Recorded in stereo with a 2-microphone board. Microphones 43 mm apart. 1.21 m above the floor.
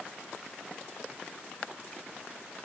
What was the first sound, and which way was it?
Only background noise.